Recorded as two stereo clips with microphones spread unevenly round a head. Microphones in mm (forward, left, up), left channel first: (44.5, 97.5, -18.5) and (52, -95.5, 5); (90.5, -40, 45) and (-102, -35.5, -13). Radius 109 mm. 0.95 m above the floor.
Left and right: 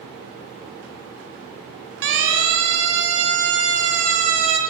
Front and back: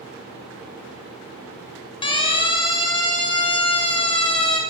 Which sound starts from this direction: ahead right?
A siren, at 2.0 s.